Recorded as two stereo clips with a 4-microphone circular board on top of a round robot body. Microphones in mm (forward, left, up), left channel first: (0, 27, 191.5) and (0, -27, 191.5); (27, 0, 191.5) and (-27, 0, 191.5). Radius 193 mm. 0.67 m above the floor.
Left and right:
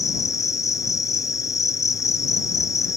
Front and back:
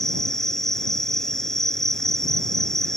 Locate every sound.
0.0 s an insect: 80° left